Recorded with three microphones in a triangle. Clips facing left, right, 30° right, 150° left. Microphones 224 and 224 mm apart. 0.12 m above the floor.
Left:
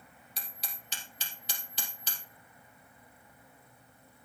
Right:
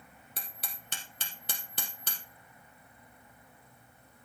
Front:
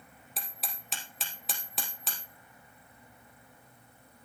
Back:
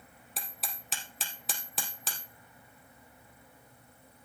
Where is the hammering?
120° right, 3.5 m.